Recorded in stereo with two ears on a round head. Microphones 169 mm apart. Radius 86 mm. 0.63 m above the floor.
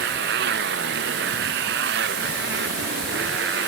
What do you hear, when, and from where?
0.0 s a motorcycle: 60° right (ahead or behind)